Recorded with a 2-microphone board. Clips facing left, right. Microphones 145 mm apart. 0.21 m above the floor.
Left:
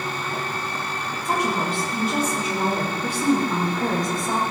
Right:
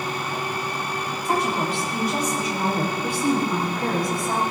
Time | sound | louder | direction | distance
1.2 | a woman speaking | even | 20° left (ahead or behind) | 7 m